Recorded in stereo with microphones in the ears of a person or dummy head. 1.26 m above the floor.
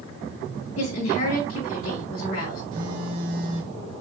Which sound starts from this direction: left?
A woman speaking, at 0.8 s.